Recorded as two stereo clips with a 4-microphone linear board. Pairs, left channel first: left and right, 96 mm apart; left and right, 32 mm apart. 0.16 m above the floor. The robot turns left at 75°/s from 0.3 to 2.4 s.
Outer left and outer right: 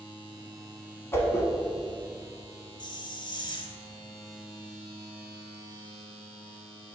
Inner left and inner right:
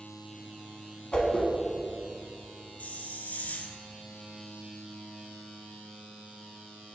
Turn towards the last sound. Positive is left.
turn(degrees=50)  # may be behind; listen again after turning